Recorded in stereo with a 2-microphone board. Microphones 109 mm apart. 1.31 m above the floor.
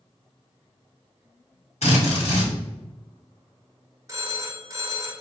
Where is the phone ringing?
30° right (ahead or behind), 0.6 m.